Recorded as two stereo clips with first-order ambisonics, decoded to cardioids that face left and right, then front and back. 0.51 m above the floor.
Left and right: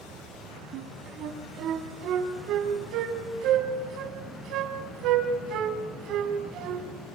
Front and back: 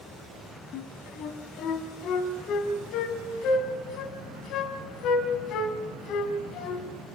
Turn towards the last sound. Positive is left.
turn(degrees=-45)